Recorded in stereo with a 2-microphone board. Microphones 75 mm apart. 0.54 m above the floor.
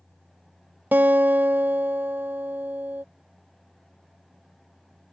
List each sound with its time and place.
0.9 s a guitar: 25° right (ahead or behind)